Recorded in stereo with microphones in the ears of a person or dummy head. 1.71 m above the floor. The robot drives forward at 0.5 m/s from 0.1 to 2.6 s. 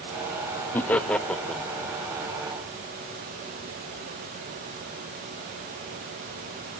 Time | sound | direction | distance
0.7 | laughter | 10° left (ahead or behind) | 0.5 m